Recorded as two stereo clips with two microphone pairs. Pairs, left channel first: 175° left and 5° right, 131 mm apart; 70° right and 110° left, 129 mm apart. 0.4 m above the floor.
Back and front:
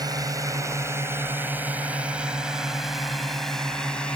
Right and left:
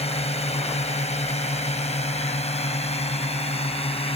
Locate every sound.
0.0 s a drone: 55° right; by 4.2 s 100° right